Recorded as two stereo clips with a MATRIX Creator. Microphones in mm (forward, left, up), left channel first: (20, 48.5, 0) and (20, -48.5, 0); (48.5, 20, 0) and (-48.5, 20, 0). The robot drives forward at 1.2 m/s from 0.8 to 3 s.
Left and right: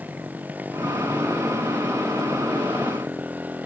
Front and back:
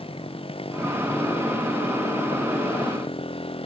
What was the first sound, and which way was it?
A motorcycle, 15° right.